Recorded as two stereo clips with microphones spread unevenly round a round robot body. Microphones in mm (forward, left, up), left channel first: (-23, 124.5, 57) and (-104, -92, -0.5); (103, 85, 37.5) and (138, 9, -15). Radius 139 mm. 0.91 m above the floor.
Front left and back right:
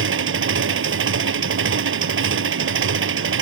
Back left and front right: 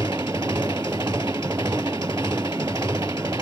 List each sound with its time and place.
0.0 s an engine running: 145° right